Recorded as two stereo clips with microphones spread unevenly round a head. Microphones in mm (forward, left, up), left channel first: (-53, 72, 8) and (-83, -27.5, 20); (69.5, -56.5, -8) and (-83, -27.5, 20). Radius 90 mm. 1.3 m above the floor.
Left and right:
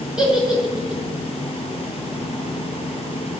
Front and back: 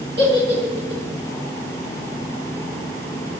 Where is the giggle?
170° left, 2 m.